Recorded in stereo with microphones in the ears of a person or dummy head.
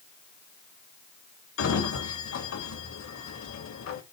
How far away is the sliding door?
About 3 m.